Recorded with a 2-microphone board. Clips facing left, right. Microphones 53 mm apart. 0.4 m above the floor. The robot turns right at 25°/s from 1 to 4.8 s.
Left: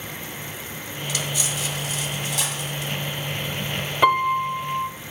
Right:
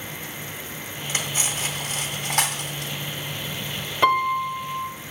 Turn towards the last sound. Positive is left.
turn(degrees=25)  # may be behind; listen again after turning